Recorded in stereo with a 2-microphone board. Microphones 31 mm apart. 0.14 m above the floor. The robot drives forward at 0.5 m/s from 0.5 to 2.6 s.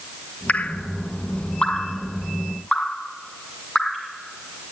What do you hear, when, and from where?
0.5 s dripping: 55° left (ahead or behind), 0.7 m; by 4.1 s 20° left (ahead or behind), 1.5 m